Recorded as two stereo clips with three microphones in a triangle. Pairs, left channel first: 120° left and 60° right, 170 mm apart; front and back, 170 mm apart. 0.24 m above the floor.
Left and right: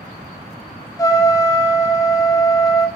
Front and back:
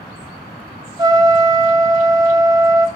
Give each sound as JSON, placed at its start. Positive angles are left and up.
{"t": 1.0, "sound": "a trumpet", "azimuth_deg": 160, "distance_m": 0.7}